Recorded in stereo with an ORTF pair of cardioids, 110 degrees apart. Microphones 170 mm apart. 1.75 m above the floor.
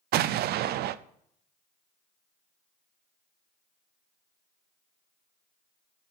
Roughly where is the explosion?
Right.